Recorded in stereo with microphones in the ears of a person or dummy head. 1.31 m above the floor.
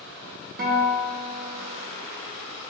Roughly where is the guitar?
Right.